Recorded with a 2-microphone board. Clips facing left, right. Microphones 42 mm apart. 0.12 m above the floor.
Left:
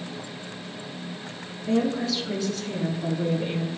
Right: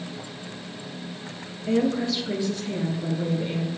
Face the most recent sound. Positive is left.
turn(degrees=5)  # may be behind; listen again after turning